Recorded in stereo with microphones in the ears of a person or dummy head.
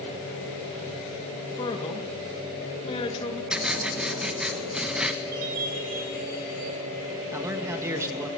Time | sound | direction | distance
1.6 | a man speaking | 30° left (ahead or behind) | 2 m
3.5 | writing | centre (ahead or behind) | 1.4 m
5.3 | a chime | 50° right (ahead or behind) | 4.5 m
7.3 | a man speaking | 15° right (ahead or behind) | 1.7 m